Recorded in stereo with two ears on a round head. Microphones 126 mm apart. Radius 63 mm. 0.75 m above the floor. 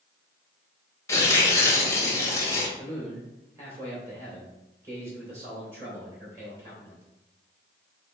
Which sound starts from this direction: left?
Tearing paper, at 1.1 s.